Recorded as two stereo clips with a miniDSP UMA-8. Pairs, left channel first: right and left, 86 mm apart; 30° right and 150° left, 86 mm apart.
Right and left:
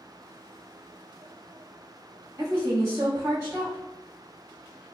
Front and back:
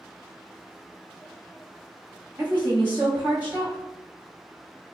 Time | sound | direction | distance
2.4 | a woman speaking | 105° left | 1.0 m